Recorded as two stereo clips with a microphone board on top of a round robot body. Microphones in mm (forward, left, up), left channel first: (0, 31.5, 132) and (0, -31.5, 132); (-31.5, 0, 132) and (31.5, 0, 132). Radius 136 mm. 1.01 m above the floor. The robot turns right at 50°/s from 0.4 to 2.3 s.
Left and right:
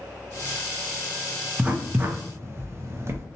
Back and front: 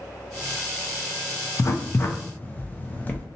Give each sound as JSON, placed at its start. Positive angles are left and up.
{"t": 1.6, "sound": "writing", "azimuth_deg": -160, "distance_m": 0.6}